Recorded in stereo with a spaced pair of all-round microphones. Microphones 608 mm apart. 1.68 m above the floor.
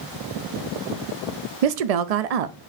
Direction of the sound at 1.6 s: 75° right (ahead or behind).